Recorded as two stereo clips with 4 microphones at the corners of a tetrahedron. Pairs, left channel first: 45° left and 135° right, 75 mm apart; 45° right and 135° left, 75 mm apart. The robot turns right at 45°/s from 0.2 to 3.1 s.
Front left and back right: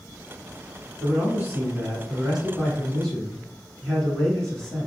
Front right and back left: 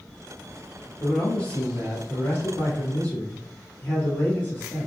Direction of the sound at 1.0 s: 120° right.